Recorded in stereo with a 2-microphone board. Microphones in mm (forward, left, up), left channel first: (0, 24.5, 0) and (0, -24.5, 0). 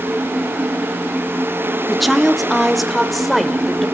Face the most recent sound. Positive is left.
turn(degrees=0)  # may be behind; listen again after turning